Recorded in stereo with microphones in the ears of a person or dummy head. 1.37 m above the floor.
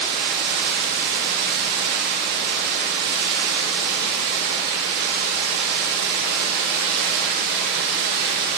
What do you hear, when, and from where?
0.0 s running water: 60° right (ahead or behind), 0.8 m